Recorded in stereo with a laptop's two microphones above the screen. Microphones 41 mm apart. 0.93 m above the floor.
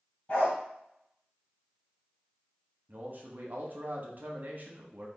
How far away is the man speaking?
About 0.9 m.